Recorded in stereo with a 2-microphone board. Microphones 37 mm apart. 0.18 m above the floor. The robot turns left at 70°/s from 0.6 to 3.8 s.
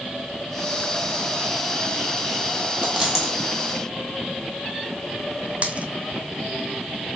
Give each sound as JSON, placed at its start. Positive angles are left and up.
{"t": 2.8, "sound": "a dropped coin", "side_deg": -30, "distance_m": 1.4}
{"t": 5.6, "sound": "a dropped coin", "side_deg": -40, "distance_m": 0.6}